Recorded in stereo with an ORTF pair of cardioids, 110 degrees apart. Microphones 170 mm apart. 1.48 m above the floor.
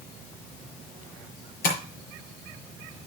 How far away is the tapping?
About 6.5 m.